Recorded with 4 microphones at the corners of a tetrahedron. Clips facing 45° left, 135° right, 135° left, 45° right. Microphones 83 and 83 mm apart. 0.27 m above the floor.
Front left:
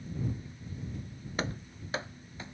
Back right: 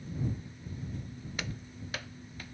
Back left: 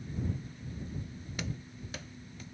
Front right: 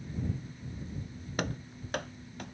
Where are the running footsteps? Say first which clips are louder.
Front left 7 dB, front right 6 dB; 10° right; by 2.5 s 20° right.